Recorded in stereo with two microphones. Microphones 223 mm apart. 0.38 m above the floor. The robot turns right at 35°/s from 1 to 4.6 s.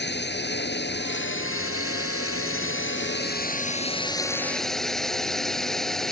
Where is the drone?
50° left; by 6.1 s straight behind.